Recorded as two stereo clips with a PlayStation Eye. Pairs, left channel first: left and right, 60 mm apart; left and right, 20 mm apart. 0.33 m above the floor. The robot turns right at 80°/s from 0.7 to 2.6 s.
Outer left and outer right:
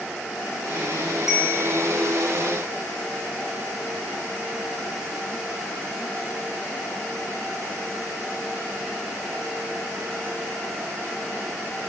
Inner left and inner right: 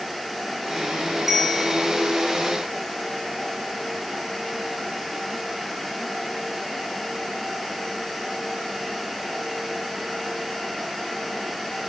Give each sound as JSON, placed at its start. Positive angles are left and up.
{"t": 1.3, "sound": "a bell", "azimuth_deg": -10, "distance_m": 3.5}